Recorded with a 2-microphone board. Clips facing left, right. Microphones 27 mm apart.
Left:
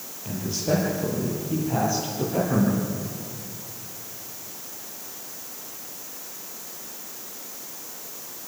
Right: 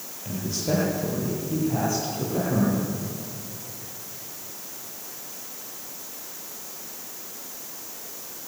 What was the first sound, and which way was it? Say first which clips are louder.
A man speaking: left 2 dB; 5° left (ahead or behind).